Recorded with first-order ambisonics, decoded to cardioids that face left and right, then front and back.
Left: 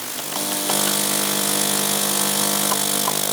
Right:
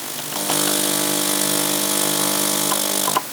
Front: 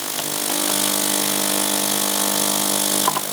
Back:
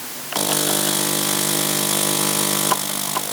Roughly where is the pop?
No pop in this recording.